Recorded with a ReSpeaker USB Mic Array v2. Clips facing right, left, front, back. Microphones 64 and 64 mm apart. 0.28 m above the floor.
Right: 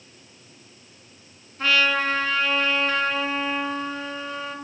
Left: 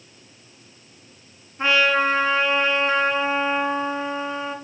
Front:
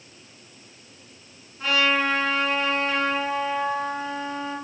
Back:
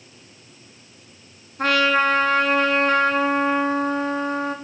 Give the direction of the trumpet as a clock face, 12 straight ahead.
7 o'clock.